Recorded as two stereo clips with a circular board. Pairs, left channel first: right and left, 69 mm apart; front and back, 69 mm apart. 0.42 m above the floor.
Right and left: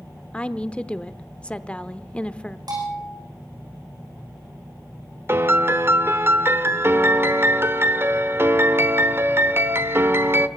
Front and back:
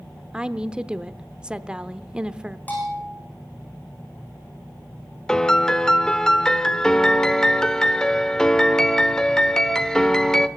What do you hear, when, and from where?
0.3 s a woman speaking: 125° right, 0.7 m
2.7 s a bell: 65° left, 6.5 m
5.3 s a piano: 75° left, 1.0 m